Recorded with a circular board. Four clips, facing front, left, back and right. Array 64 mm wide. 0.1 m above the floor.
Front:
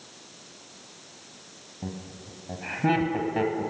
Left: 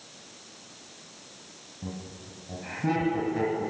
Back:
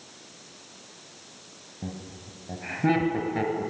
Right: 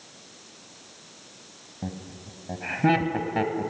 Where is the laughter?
100° right, 1.5 m.